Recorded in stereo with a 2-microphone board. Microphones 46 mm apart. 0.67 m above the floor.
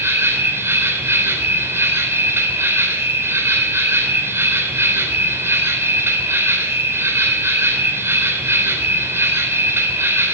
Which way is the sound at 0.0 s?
70° right (ahead or behind).